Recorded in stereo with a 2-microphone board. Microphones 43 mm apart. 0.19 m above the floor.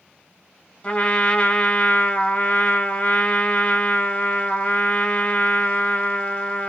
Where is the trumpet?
25° left (ahead or behind), 1.0 m.